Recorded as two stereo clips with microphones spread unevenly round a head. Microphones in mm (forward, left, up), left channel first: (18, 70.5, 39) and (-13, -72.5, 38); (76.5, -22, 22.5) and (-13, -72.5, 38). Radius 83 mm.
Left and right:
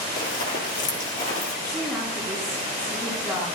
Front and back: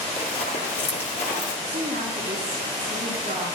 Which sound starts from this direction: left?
Running footsteps, at 0.2 s.